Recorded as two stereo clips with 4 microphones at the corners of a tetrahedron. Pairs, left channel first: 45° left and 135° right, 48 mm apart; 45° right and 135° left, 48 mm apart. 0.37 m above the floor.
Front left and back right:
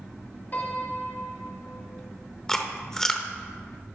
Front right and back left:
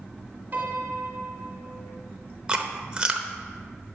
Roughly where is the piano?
Left.